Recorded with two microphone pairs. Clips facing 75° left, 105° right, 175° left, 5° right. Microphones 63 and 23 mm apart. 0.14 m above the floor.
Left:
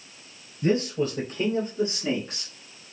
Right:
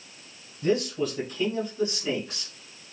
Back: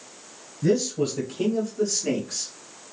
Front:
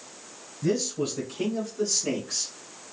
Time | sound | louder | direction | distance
0.6 | a man speaking | left 1 dB, back 4 dB | 120° left | 1.8 m